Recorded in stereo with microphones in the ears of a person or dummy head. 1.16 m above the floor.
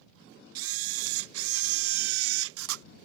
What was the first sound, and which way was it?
A camera shutter, 70° right (ahead or behind).